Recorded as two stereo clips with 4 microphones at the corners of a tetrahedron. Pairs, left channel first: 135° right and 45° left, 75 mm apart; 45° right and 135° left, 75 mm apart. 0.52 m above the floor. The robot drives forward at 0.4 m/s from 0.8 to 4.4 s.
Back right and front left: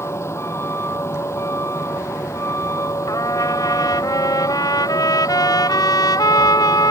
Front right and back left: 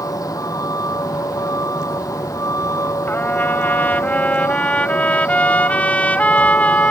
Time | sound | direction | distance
0.0 | a vehicle | 85° right | ?
3.1 | a trumpet | 100° right | ?